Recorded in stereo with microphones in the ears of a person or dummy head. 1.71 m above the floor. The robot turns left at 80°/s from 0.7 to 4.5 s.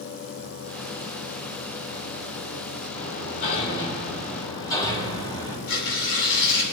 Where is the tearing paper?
80° left, 3 m.